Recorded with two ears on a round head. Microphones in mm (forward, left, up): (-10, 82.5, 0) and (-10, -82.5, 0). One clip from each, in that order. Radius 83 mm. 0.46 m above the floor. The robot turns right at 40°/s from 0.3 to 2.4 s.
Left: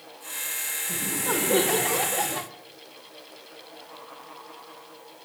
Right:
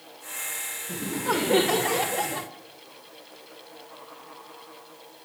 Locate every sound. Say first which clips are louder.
0.9 s laughter: right 2 dB; 45° right, 1.4 m; by 2.5 s 15° left, 1.4 m